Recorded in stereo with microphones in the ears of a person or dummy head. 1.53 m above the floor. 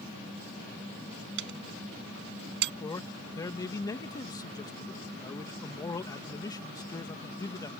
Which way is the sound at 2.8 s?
15° left (ahead or behind).